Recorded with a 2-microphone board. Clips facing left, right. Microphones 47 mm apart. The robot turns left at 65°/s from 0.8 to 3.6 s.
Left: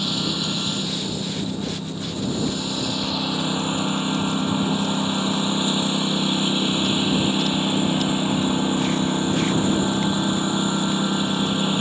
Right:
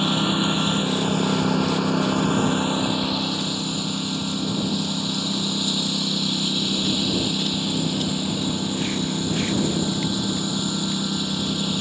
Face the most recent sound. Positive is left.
turn(degrees=150)